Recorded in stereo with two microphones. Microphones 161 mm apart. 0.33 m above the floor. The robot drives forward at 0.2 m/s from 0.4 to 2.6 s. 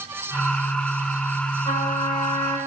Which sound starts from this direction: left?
A trumpet, at 1.6 s.